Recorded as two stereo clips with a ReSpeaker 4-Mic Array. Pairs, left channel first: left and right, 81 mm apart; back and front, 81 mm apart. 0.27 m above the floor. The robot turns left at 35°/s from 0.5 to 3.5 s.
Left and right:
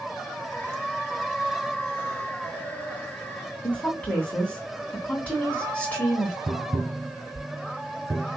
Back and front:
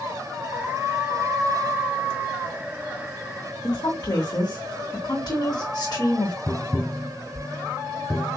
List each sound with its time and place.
3.6 s a woman speaking: 165° left, 2.5 m
6.5 s tapping: 100° right, 0.5 m